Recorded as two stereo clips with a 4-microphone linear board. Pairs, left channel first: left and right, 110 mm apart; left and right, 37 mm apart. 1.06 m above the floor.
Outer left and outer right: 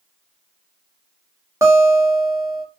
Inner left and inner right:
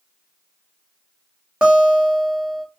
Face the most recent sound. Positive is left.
turn(degrees=-25)  # may be behind; listen again after turning